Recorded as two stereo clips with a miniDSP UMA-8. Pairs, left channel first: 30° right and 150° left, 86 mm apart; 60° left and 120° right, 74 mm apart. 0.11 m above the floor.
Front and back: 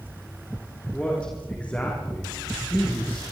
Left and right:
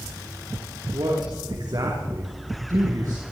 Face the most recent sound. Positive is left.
turn(degrees=-95)